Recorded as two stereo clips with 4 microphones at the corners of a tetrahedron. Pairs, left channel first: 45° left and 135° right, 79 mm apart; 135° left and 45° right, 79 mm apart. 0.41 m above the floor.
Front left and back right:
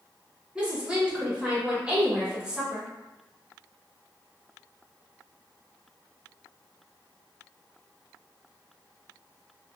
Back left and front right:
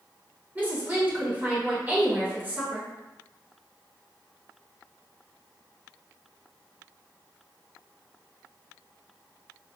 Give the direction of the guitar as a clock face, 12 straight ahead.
No guitar in this recording.